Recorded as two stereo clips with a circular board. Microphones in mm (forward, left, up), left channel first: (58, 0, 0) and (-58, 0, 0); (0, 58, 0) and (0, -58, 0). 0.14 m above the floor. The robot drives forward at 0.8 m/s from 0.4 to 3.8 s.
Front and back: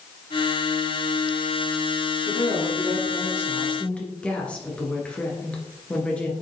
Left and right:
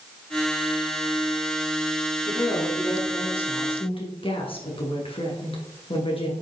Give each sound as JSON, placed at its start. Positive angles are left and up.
{"t": 2.2, "sound": "a woman speaking", "azimuth_deg": 45, "distance_m": 2.5}